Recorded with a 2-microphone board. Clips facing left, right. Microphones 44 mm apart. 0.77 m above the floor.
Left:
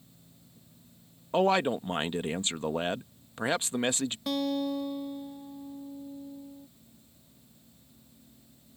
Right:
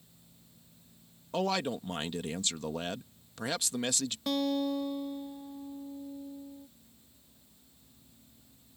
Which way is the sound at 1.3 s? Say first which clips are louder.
Left 6 dB; 30° left (ahead or behind).